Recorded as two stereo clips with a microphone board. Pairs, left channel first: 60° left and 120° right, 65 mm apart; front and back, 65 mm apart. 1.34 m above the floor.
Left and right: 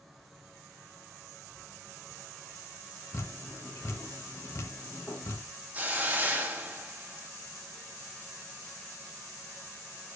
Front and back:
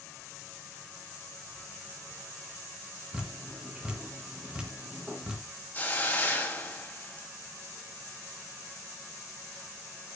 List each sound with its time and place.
3.1 s dripping: 105° left, 1.3 m
5.7 s a hiss: 60° right, 1.2 m